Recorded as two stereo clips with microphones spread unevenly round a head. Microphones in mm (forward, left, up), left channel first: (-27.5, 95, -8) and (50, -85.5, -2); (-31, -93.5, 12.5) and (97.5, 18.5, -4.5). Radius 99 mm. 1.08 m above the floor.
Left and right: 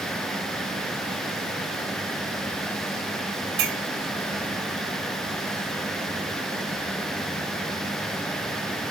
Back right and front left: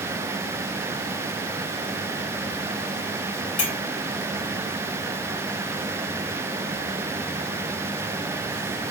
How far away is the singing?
I don't hear singing.